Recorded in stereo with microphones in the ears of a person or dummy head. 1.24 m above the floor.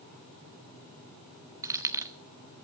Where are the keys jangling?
20° right (ahead or behind), 0.9 m.